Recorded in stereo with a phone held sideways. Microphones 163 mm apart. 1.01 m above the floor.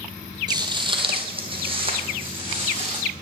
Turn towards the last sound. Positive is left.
turn(degrees=-30)  # may be behind; listen again after turning